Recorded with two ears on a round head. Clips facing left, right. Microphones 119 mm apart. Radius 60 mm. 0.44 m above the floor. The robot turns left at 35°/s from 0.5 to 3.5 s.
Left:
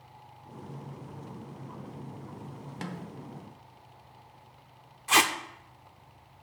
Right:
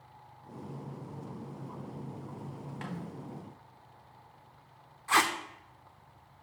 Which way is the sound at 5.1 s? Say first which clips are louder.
Left 2 dB; 25° left (ahead or behind).